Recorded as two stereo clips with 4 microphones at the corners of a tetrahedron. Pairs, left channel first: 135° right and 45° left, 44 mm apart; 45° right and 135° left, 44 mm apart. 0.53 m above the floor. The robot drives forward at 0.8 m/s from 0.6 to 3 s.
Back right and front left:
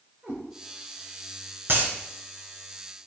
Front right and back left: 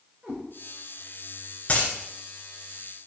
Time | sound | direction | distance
0.2 | a cat meowing | 75° left | 5 m
1.7 | a dropped coin | 10° left | 1.7 m